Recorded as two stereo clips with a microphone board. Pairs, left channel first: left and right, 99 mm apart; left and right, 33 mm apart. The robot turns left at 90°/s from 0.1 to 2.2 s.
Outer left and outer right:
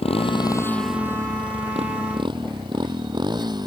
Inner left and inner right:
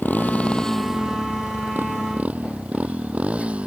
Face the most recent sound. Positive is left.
turn(degrees=-45)  # may be behind; listen again after turning